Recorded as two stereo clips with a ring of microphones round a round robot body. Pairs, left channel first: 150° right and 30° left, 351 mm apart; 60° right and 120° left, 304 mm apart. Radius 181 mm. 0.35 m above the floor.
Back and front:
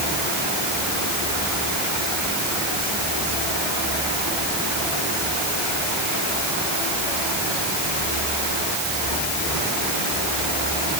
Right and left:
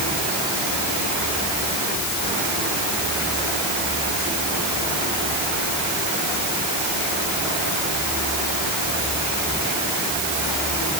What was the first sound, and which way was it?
Only background noise.